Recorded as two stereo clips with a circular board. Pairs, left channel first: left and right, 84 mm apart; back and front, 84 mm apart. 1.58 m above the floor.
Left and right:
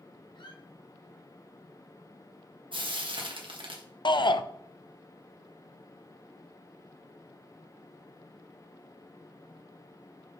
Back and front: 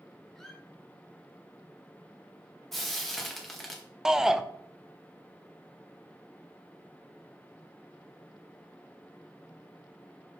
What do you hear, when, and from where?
0.3 s a squeak: 95° left, 1.7 m
2.7 s frying: 95° right, 1.6 m
4.0 s a shout: 80° left, 0.6 m